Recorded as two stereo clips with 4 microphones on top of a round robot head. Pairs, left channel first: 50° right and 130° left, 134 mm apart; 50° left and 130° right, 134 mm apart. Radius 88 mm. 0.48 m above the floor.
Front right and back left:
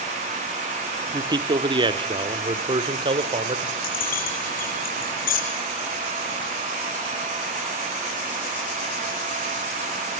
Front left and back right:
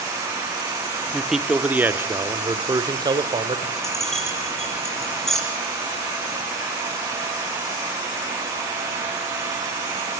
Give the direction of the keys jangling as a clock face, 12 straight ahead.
1 o'clock.